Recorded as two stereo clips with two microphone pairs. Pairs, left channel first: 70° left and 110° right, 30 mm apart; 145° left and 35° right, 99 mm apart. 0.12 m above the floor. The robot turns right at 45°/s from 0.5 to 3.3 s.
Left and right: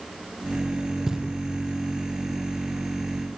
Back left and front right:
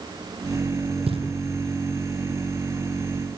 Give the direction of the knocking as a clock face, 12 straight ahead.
1 o'clock.